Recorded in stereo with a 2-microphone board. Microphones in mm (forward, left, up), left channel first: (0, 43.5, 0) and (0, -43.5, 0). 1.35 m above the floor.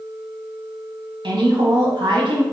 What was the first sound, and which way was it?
A woman speaking, 65° right (ahead or behind).